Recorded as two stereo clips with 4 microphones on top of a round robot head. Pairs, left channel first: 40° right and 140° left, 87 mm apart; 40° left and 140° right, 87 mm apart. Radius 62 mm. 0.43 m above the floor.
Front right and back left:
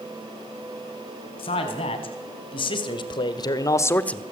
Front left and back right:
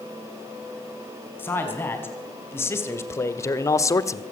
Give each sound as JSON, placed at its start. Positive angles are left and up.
{"t": 1.4, "sound": "a man speaking", "azimuth_deg": -30, "distance_m": 4.5}